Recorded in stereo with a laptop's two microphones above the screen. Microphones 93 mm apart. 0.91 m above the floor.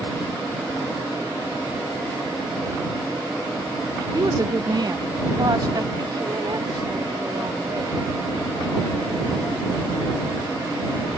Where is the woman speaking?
40° right (ahead or behind); by 8.0 s 55° right (ahead or behind).